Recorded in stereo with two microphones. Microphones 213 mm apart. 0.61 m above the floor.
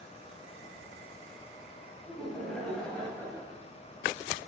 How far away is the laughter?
About 3 m.